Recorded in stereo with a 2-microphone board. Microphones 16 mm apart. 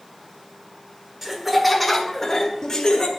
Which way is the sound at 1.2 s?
20° right (ahead or behind).